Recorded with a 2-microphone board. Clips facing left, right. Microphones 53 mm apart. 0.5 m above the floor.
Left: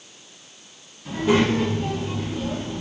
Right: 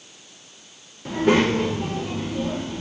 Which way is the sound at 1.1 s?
55° right (ahead or behind).